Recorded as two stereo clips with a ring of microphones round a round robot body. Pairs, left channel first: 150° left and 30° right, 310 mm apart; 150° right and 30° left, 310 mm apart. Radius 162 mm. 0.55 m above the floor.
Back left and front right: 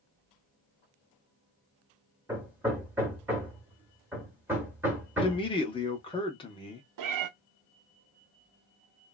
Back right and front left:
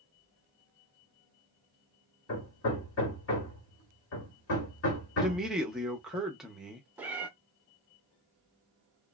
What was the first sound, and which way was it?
Hammering, 115° right.